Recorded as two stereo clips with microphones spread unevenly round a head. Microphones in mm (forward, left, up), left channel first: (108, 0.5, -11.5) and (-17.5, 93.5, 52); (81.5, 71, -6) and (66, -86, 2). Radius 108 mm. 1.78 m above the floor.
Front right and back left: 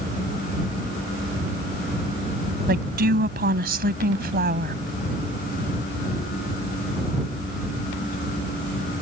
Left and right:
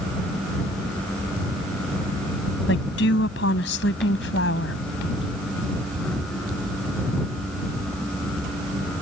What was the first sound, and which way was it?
A woman speaking, 125° left.